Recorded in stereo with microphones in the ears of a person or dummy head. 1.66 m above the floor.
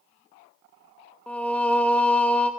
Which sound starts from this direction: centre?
Singing, at 1.3 s.